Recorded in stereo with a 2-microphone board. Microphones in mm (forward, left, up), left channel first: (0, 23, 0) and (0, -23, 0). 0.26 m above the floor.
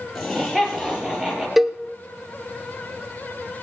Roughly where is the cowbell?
Centre.